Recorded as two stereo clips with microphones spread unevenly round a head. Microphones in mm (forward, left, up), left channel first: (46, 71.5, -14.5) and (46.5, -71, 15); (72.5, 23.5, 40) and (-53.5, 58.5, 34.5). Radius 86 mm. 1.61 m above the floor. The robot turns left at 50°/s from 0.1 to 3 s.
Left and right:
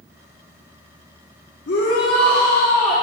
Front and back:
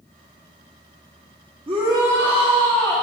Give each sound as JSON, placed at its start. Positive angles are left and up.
{"t": 1.7, "sound": "a shout", "azimuth_deg": 115, "distance_m": 1.3}